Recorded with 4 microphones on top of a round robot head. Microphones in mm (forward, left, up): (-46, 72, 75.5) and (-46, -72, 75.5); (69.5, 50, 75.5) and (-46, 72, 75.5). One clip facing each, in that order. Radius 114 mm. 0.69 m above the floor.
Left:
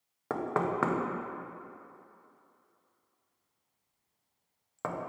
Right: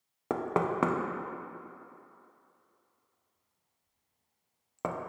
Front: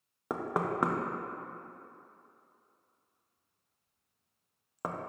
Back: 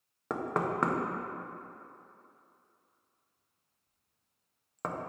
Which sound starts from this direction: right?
Knocking, at 0.3 s.